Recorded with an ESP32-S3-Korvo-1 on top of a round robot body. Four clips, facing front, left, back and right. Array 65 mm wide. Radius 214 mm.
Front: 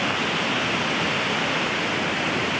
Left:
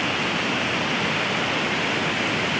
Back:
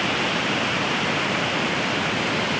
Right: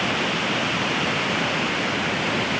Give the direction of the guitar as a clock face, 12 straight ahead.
I don't hear a guitar.